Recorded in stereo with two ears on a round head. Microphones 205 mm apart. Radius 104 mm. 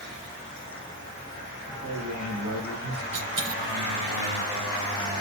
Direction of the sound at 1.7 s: 55° right (ahead or behind).